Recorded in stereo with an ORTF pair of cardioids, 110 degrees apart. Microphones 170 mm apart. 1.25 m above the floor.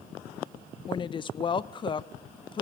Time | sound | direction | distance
0.9 | a woman speaking | 30° left | 0.8 m